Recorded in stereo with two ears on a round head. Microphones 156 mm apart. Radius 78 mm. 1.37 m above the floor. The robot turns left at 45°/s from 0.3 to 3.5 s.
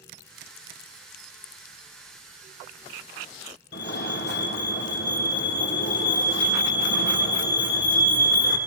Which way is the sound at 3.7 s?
70° left (ahead or behind).